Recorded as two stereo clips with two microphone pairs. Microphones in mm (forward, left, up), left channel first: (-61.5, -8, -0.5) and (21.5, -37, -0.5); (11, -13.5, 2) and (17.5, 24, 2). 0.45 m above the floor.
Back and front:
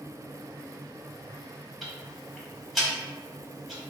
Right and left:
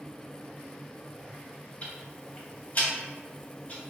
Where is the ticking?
115° right, 1.0 m.